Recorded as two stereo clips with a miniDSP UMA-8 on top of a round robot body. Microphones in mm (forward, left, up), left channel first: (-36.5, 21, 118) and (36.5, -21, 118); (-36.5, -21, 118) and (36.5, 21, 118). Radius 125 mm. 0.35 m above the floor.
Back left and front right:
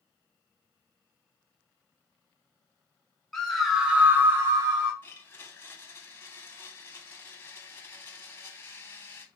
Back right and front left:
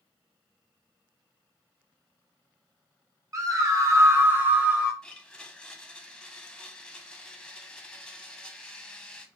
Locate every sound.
3.3 s a scream: 65° left, 2 m; by 4.9 s 50° right, 1.9 m
5.0 s a blender: 140° left, 1.3 m